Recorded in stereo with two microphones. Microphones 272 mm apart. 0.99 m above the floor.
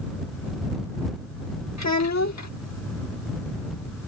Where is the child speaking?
70° left (ahead or behind).